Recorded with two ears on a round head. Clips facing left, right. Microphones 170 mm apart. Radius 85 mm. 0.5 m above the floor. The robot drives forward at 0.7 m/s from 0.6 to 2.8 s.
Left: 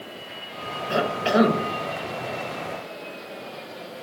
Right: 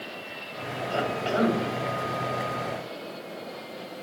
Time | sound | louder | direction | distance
0.9 | a cough | left 6 dB | 70° left (ahead or behind) | 2 m